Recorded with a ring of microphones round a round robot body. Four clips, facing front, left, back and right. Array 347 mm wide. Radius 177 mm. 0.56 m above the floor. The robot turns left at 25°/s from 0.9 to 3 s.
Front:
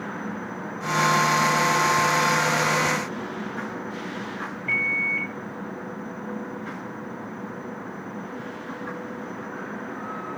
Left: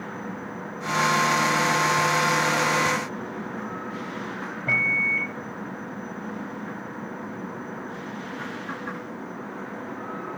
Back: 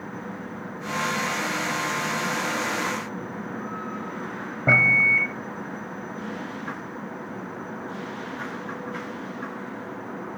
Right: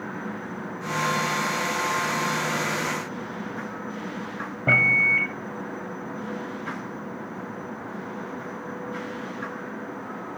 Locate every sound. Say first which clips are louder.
4.7 s a microwave: right 5 dB, back 9 dB; 150° right